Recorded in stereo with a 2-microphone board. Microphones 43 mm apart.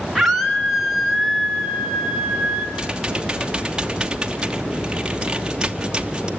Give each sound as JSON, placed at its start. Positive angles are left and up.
{"t": 0.1, "sound": "a scream", "side_deg": 0, "distance_m": 4.0}
{"t": 2.8, "sound": "typing on a keyboard", "side_deg": -20, "distance_m": 1.0}